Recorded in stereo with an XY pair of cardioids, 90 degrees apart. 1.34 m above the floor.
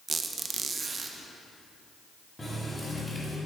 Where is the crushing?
I don't hear crushing.